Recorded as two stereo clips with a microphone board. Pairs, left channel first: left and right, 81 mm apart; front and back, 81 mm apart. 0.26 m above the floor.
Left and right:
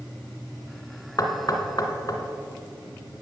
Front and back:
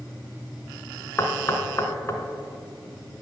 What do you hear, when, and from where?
1.2 s knocking: 55° left, 1.8 m